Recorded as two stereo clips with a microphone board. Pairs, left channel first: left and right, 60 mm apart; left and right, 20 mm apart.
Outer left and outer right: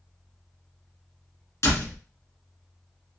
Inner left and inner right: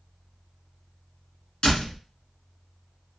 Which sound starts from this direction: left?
A door slam, at 1.6 s.